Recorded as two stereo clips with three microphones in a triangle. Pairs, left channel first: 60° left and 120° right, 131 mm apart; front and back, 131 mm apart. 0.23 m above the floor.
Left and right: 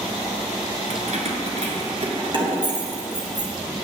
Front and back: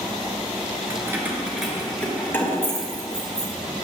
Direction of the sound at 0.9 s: 115° right.